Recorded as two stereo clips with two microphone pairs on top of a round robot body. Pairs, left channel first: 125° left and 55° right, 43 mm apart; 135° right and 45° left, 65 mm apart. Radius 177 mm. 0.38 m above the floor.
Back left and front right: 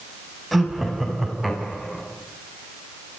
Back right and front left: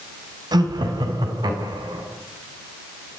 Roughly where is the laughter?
Ahead left.